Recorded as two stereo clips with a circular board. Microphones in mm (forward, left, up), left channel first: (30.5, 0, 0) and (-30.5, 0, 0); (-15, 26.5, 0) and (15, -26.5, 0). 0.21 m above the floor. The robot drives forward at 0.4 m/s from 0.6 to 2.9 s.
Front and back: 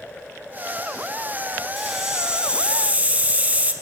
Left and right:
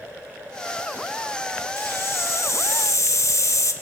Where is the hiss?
95° left, 1.0 m; by 3.7 s 120° left, 1.2 m.